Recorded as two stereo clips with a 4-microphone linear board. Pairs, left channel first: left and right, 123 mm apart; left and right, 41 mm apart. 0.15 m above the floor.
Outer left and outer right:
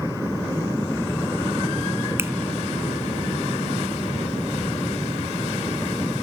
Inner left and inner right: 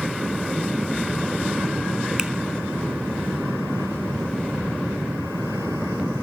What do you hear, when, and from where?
2.2 s a finger snap: 20° right (ahead or behind), 1.1 m